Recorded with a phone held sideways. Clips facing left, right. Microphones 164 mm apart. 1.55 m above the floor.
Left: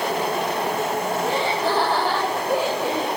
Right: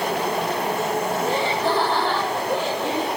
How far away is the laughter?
About 7 m.